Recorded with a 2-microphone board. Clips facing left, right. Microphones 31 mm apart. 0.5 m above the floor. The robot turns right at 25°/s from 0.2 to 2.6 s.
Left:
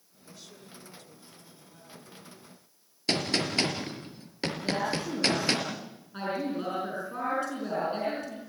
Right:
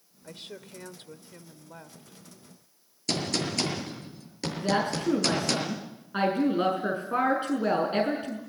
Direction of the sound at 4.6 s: 40° right (ahead or behind).